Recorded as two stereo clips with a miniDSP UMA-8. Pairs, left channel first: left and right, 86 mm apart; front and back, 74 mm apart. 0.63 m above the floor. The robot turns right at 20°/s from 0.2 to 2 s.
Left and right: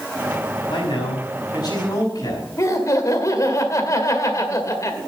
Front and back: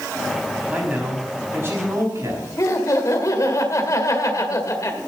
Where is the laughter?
40° left, 1.9 m.